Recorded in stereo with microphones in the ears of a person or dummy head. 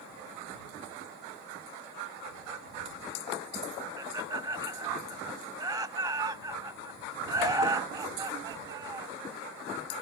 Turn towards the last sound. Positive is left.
turn(degrees=-15)  # may be behind; listen again after turning